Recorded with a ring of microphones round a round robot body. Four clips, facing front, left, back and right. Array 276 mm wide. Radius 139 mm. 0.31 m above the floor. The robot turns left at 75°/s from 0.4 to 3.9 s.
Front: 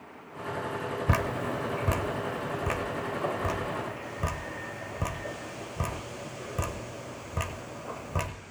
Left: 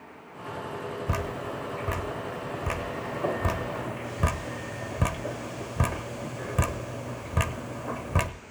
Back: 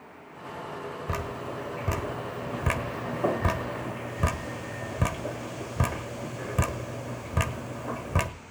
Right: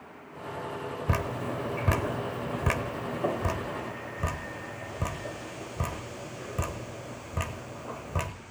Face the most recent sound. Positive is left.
turn(degrees=130)